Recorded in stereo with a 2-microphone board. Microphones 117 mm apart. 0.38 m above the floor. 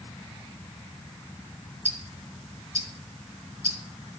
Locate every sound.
1.9 s ticking: 75° right (ahead or behind), 4 m